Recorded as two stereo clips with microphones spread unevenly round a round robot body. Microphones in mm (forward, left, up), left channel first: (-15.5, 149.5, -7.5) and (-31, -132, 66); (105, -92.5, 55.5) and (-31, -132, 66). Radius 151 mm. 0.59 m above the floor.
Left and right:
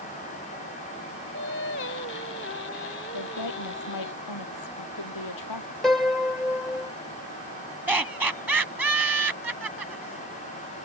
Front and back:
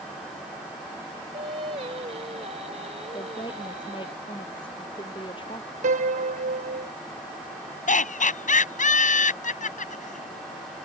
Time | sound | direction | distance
1.3 | singing | 135° left | ?
3.1 | a woman speaking | 85° left | ?
5.8 | a piano | 170° left | ?
7.9 | laughter | 5° right | ?